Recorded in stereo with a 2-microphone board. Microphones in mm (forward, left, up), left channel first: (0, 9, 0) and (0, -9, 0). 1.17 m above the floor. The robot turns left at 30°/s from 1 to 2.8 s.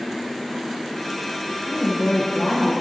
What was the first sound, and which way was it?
A woman speaking, 110° left.